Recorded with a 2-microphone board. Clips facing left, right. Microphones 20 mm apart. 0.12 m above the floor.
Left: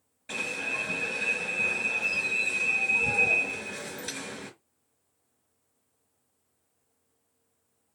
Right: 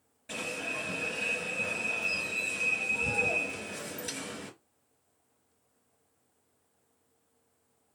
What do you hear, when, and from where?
0.3 s an alarm: 20° left (ahead or behind), 2.5 m